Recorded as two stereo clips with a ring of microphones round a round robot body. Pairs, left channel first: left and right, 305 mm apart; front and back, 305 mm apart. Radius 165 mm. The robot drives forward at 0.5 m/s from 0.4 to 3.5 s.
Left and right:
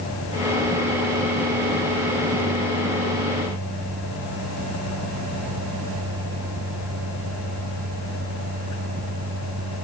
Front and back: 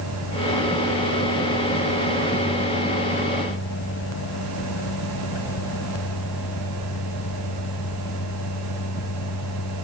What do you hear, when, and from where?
Only background noise.